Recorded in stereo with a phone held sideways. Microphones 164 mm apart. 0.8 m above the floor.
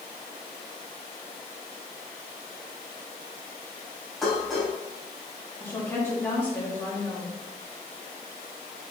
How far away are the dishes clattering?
About 3.5 m.